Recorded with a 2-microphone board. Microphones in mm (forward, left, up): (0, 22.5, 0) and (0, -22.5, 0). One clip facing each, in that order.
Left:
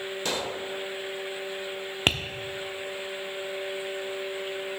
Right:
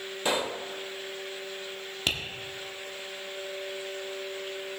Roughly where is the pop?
Right.